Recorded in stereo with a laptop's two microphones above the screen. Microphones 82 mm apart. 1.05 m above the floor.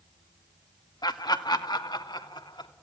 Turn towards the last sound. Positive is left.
turn(degrees=65)  # may be behind; listen again after turning